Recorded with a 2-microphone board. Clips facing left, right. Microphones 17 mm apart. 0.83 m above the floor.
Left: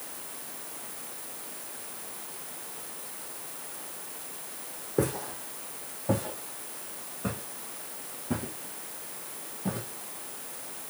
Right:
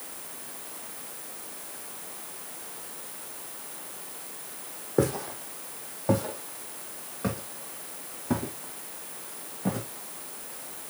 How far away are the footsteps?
About 2 m.